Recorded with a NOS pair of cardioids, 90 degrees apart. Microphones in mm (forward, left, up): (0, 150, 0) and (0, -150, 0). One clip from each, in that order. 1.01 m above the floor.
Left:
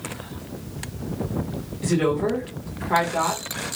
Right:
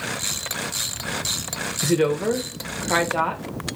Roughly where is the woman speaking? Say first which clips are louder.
Right 1 dB; ahead right.